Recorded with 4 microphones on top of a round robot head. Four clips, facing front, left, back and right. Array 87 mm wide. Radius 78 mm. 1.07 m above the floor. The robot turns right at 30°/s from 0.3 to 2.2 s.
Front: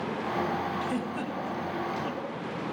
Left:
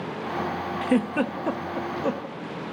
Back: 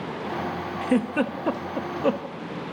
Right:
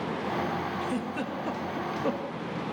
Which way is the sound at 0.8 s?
130° left.